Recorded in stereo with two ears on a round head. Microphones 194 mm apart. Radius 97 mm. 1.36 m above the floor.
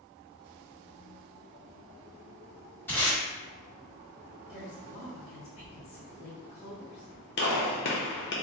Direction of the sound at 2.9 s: 10° left (ahead or behind).